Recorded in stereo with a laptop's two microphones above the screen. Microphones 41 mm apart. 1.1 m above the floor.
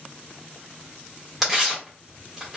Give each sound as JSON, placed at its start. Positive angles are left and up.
{"t": 1.4, "sound": "tearing paper", "side_deg": -5, "distance_m": 1.4}